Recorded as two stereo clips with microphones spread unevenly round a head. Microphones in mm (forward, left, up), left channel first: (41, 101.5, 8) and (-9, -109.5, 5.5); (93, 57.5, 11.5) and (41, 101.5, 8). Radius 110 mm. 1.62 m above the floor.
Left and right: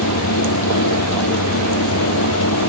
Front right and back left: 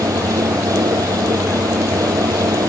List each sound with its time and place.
0.0 s a fan: 105° left